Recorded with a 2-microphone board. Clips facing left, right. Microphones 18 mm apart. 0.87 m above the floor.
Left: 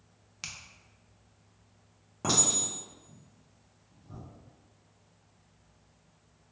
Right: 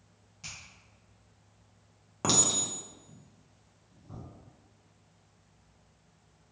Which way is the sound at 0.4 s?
60° left (ahead or behind).